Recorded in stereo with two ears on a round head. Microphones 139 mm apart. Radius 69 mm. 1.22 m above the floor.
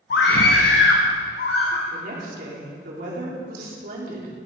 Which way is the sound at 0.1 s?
65° left (ahead or behind).